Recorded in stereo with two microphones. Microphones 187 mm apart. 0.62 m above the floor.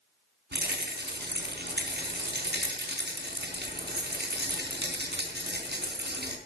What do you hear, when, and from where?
0.5 s a rattle: 70° right (ahead or behind), 4.5 m